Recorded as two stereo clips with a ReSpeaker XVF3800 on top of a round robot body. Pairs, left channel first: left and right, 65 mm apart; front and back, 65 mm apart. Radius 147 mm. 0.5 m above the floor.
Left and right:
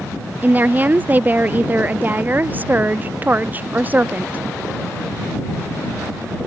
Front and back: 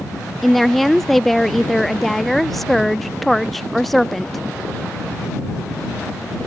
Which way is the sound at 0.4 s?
85° right.